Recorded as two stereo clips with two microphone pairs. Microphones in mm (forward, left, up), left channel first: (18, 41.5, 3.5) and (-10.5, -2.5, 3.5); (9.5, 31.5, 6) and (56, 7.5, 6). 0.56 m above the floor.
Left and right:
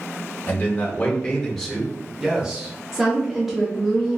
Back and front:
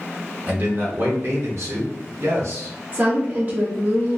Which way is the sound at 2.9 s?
40° right.